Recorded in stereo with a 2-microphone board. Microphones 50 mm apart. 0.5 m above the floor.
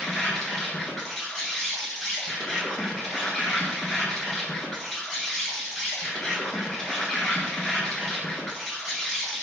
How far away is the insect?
About 0.7 m.